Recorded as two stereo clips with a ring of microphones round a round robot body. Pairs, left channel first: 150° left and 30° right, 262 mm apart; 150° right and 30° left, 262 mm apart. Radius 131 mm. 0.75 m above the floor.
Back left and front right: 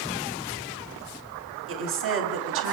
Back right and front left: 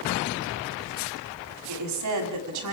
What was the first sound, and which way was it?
A woman speaking, 10° left.